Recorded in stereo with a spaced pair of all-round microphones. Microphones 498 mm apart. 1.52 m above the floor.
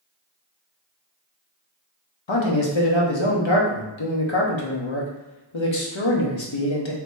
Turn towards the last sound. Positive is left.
turn(degrees=65)  # may be behind; listen again after turning